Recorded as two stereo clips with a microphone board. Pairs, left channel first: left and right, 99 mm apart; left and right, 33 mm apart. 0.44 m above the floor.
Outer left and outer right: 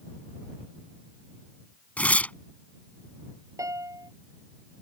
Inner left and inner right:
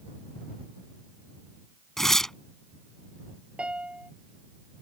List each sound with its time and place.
2.0 s tearing paper: 15° left (ahead or behind)
3.6 s a piano: 35° right (ahead or behind)